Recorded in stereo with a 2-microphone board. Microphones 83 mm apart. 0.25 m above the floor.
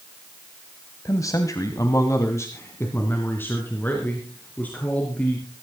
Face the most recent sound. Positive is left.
turn(degrees=15)  # may be behind; listen again after turning